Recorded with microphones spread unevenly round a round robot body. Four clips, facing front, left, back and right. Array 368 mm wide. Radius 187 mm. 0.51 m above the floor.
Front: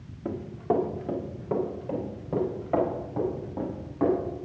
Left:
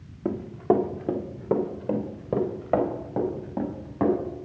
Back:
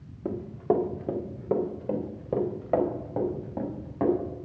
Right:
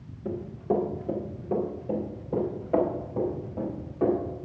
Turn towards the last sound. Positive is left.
turn(degrees=95)